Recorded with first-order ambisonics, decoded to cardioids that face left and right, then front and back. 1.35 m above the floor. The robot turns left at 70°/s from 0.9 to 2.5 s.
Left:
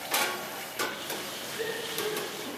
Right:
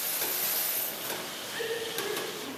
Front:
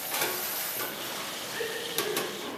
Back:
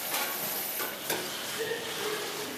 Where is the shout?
45° right, 9.5 m; by 2.5 s 115° right, 9.5 m.